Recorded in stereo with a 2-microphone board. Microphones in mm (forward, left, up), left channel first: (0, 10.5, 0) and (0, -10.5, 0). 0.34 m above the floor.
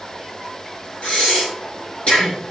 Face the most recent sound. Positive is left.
turn(degrees=80)